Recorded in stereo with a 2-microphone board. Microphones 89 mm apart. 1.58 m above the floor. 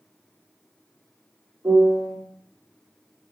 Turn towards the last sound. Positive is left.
turn(degrees=-30)  # may be behind; listen again after turning